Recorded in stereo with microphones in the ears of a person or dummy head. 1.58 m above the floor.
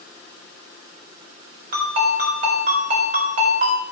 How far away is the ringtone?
About 3.5 m.